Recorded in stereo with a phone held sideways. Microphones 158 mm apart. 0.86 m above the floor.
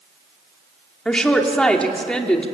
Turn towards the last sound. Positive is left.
turn(degrees=5)  # may be behind; listen again after turning